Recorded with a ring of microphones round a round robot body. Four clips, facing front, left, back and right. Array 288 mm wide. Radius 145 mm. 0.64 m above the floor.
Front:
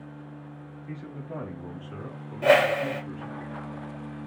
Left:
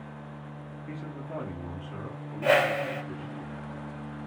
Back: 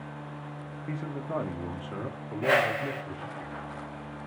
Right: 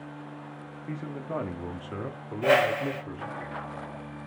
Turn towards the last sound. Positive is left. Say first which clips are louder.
# right 1 dB, front 6 dB
turn(degrees=0)